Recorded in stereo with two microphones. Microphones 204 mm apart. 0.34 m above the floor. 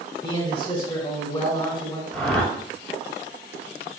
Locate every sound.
0.2 s a man speaking: 25° left (ahead or behind), 1.4 m
2.1 s a whoosh: centre (ahead or behind), 1.5 m